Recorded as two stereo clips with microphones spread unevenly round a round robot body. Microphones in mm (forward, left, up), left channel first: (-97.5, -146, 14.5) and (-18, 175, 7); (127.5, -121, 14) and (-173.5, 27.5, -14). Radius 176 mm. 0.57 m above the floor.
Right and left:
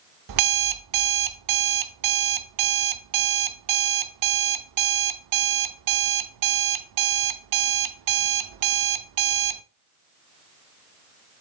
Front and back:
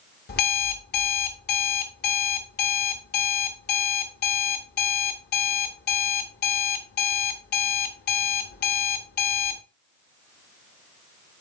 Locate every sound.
0.3 s an alarm clock: 40° left, 0.6 m